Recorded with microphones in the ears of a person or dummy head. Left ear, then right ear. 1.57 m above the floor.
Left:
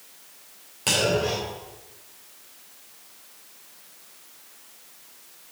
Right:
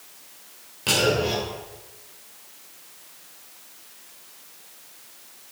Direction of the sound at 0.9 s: 15° left (ahead or behind).